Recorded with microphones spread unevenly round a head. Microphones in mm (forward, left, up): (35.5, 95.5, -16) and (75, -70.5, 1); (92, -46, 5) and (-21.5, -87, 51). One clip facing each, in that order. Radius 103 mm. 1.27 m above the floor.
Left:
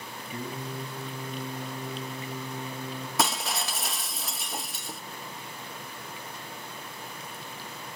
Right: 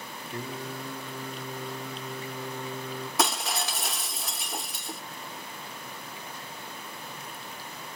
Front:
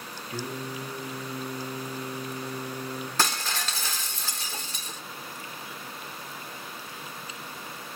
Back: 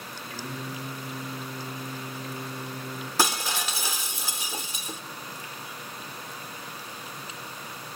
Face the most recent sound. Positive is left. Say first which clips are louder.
# even, back 3 dB
turn(degrees=-155)